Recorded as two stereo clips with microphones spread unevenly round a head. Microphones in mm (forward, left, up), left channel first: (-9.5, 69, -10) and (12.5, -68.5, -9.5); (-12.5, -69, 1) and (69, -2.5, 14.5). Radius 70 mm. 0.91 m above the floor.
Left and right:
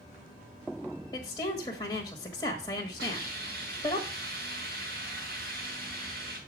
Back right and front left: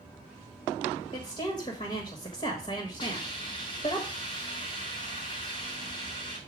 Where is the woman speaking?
170° left, 1.5 m.